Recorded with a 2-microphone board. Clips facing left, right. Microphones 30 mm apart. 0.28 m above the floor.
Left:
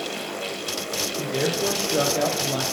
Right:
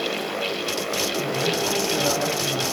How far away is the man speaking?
About 8 m.